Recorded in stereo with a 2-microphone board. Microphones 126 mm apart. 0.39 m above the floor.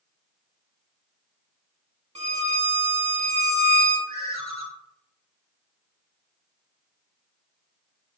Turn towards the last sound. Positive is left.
turn(degrees=25)  # may be behind; listen again after turning